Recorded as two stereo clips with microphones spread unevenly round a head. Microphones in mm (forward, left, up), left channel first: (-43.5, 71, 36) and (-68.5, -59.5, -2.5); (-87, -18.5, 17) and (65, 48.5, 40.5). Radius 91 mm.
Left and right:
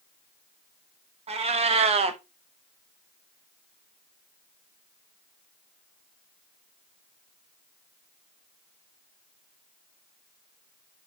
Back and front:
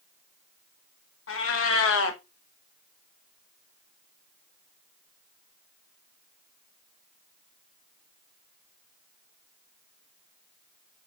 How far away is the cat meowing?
About 0.6 m.